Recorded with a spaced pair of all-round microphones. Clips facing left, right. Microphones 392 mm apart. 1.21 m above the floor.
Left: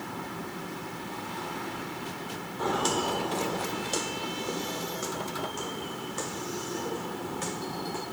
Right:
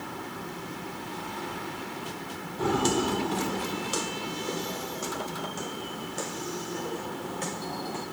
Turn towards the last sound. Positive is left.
turn(degrees=20)  # may be behind; listen again after turning